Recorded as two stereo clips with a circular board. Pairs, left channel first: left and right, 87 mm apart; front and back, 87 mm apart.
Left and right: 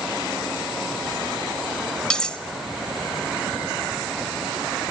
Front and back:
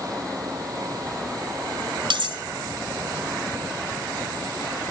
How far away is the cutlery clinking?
About 1.0 m.